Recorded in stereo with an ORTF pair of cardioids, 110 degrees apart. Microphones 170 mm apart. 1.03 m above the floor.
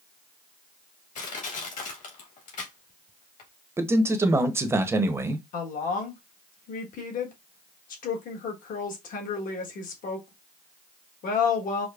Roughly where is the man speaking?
Ahead.